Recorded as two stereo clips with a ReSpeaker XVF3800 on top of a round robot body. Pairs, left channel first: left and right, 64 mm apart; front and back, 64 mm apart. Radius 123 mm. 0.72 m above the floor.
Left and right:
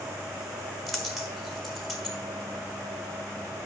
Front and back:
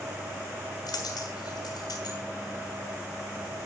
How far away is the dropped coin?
About 1.5 m.